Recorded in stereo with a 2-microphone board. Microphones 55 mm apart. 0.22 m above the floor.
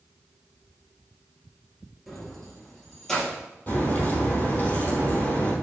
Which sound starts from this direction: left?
A crack, at 3.7 s.